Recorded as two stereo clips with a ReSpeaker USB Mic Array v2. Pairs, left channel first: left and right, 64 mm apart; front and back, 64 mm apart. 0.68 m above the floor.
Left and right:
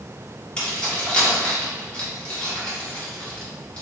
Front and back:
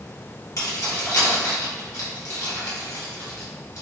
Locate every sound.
0.6 s keys jangling: 20° left, 1.1 m